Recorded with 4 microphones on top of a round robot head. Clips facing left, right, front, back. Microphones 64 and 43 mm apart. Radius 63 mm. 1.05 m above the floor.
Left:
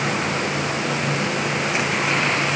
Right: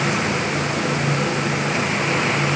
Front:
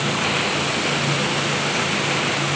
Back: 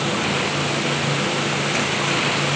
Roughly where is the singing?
No singing in this recording.